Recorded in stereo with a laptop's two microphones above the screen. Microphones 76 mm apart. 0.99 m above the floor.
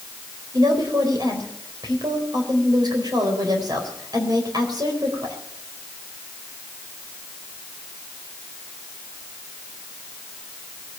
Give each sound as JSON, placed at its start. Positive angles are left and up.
{"t": 0.5, "sound": "a woman speaking", "side_deg": -60, "distance_m": 4.0}